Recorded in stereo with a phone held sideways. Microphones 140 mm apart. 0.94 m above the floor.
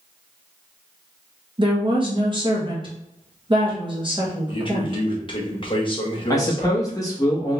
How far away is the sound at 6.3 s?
About 1.2 m.